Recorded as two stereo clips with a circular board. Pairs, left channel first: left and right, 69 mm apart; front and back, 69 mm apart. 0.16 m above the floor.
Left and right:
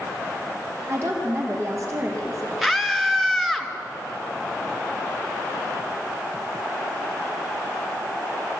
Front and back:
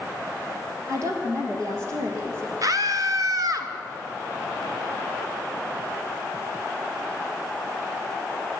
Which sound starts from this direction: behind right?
A woman speaking, at 0.9 s.